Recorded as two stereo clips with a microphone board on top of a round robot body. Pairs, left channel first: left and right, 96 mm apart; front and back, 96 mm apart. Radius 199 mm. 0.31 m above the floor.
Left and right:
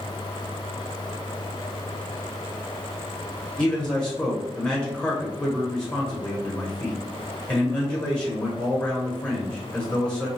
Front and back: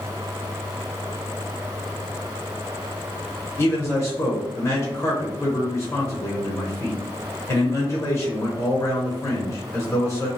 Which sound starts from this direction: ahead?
A man speaking, at 3.6 s.